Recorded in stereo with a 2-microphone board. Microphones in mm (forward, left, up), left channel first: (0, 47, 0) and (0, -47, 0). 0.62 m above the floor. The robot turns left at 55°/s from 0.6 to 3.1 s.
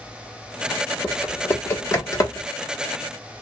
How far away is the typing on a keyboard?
About 1.1 m.